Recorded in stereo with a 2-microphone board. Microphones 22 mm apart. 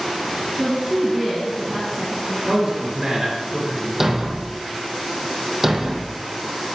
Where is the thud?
10° right (ahead or behind), 0.7 m.